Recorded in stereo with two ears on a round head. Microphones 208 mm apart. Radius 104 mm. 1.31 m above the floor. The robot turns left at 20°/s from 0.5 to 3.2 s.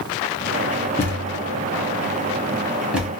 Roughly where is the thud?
Centre.